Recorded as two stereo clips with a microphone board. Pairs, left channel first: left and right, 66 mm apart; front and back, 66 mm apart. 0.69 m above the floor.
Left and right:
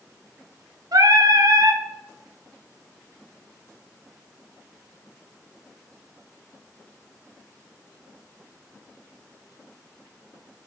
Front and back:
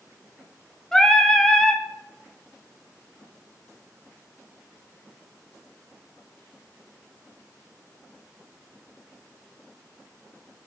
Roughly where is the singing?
Right.